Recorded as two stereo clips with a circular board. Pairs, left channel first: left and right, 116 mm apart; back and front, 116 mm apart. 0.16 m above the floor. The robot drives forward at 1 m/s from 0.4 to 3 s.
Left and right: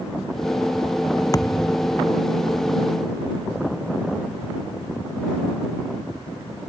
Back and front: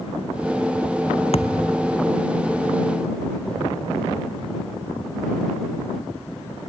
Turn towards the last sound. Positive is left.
turn(degrees=160)